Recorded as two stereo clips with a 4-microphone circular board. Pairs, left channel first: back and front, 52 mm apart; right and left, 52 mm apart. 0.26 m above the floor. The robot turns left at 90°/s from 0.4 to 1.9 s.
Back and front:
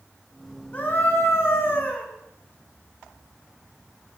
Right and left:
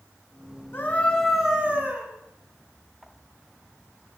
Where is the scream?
125° right, 2.5 m; by 2.1 s 130° left, 2.5 m.